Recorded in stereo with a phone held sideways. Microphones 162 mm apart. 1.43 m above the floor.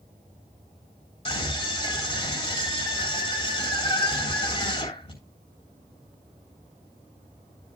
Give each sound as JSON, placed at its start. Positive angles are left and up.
{"t": 1.2, "sound": "a scream", "side_deg": 35, "distance_m": 3.0}